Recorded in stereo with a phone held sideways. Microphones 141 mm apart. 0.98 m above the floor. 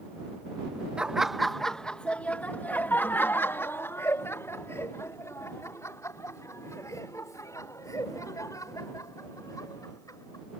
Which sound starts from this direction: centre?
Laughter, at 1.0 s.